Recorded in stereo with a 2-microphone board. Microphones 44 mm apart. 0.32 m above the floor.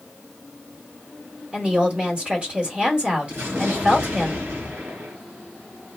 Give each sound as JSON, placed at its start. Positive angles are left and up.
{"t": 1.5, "sound": "a woman speaking", "side_deg": -30, "distance_m": 1.4}
{"t": 3.3, "sound": "an explosion", "side_deg": -80, "distance_m": 2.0}